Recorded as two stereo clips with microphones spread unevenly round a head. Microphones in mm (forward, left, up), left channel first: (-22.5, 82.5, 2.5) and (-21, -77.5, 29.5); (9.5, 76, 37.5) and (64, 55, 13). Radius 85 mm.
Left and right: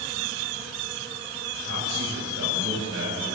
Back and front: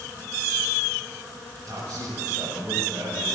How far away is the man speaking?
About 9.5 m.